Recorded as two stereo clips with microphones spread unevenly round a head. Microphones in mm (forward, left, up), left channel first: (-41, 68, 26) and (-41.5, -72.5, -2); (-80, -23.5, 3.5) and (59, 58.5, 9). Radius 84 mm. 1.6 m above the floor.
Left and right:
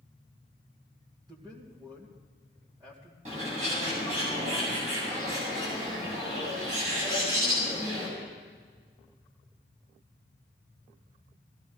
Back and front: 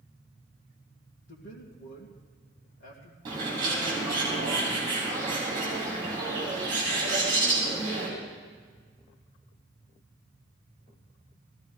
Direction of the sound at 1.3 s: 155° right.